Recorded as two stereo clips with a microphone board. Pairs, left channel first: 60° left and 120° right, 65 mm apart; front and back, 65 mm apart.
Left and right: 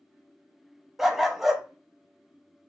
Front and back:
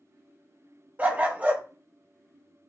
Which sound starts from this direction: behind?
A dog barking, at 1.0 s.